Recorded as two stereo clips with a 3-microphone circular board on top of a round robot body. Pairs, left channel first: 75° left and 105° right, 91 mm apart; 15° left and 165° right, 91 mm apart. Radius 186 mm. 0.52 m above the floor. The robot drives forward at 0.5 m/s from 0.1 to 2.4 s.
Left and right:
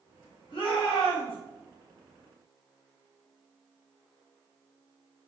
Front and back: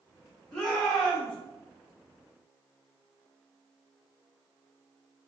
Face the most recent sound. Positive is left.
turn(degrees=115)